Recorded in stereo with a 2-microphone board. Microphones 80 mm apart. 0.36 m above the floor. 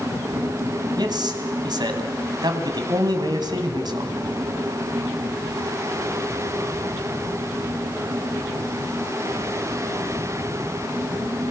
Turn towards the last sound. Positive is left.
turn(degrees=-60)  # may be behind; listen again after turning